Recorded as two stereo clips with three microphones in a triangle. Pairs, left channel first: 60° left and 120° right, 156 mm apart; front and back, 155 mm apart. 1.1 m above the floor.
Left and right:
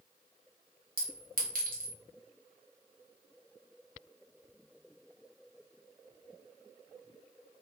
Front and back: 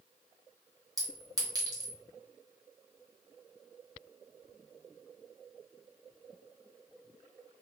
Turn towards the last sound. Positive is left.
turn(degrees=-115)